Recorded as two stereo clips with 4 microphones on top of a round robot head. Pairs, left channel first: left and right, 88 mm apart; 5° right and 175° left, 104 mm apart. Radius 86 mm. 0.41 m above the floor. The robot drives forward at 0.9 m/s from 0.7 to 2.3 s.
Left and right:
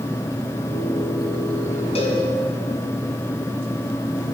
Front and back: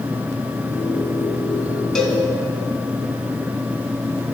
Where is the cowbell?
80° left, 2 m; by 2.2 s 85° left, 2 m.